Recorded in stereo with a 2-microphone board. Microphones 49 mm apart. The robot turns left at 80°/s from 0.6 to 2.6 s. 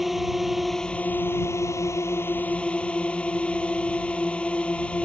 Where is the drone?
175° right; by 5.0 s 25° left.